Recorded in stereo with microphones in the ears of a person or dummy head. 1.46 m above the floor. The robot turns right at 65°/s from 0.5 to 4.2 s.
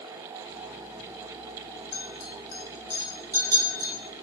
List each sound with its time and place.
1.9 s a clink: 45° left (ahead or behind), 0.9 m; by 3.9 s 30° right (ahead or behind), 0.9 m